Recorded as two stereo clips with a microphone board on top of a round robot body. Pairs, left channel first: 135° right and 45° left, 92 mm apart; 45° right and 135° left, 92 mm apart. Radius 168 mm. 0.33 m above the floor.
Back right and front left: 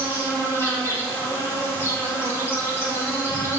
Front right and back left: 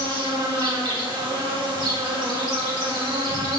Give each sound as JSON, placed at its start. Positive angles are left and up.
{"t": 0.0, "sound": "an insect", "azimuth_deg": 165, "distance_m": 2.5}